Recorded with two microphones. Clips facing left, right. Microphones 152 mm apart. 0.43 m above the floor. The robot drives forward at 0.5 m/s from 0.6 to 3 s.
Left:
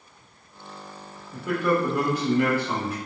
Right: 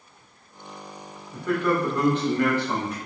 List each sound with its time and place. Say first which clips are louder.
1.3 s a man speaking: even; 10° left (ahead or behind), 1.0 m